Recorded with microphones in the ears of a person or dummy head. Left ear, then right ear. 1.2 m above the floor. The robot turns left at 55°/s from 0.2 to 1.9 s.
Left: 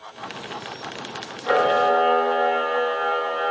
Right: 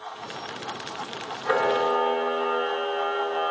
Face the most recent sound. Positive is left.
turn(degrees=-15)  # may be behind; listen again after turning